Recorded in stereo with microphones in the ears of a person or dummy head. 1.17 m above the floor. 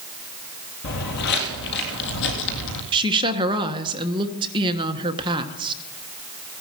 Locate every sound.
0.8 s footsteps: 45° left (ahead or behind), 1.7 m; by 2.8 s 60° left (ahead or behind), 2.5 m
2.9 s a woman speaking: 25° right (ahead or behind), 1.2 m